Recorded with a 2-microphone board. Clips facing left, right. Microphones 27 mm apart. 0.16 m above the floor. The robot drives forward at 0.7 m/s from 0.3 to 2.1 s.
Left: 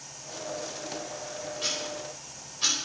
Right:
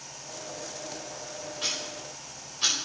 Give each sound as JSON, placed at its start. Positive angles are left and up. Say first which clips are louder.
{"t": 1.6, "sound": "ticking", "louder": "even", "side_deg": -15, "distance_m": 5.0}